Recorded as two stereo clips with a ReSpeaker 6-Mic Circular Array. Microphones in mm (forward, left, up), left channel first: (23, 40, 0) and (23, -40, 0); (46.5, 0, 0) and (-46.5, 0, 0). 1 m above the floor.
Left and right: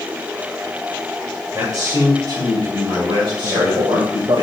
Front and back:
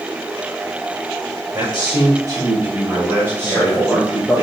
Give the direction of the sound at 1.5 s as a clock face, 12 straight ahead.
4 o'clock.